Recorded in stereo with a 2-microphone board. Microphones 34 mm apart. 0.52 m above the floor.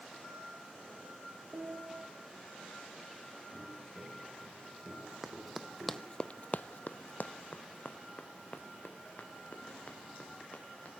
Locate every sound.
1.5 s a piano: 50° right (ahead or behind), 7.5 m
3.5 s footsteps: 60° right (ahead or behind), 8.5 m; by 6.2 s 50° right (ahead or behind), 9.5 m
5.2 s running footsteps: 10° right (ahead or behind), 1.5 m; by 10.9 s 40° left (ahead or behind), 5.5 m